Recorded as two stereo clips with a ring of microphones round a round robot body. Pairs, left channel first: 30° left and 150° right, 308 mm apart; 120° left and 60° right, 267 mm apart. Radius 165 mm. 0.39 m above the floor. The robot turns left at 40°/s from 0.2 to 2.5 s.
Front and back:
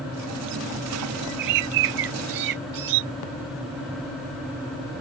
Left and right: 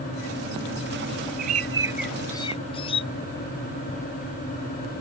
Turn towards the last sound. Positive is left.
turn(degrees=-165)